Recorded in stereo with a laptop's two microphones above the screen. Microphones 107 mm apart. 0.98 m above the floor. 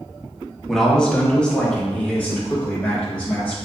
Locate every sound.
0.7 s a man speaking: 5° left (ahead or behind), 1.4 m; by 3.5 s 15° left (ahead or behind), 4 m